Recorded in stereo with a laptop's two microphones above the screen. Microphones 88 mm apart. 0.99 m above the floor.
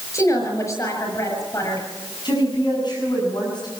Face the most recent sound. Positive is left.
turn(degrees=55)  # may be behind; listen again after turning